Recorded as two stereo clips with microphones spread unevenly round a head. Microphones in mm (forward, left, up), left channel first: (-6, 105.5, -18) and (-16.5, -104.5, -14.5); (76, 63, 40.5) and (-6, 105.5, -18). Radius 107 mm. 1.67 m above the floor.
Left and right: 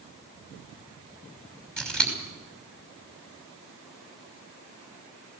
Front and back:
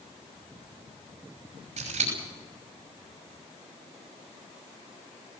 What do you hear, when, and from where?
1.8 s scissors: 175° left, 6 m